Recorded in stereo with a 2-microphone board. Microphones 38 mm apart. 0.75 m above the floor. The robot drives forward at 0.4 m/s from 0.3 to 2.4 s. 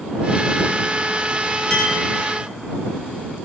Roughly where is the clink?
Centre.